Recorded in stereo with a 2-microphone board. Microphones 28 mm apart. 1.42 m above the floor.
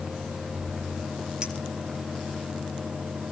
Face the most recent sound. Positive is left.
turn(degrees=-25)  # may be behind; listen again after turning